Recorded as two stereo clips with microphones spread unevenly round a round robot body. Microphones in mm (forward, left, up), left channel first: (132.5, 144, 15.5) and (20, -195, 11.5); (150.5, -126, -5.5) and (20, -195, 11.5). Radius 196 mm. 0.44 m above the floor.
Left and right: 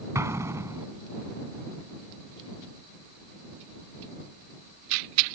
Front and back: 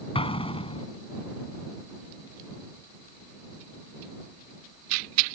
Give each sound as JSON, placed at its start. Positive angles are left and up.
{"t": 0.1, "sound": "an explosion", "azimuth_deg": -25}